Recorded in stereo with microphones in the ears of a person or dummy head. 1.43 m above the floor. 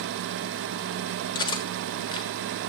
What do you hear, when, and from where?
1.4 s cutlery clinking: 25° left (ahead or behind), 1.0 m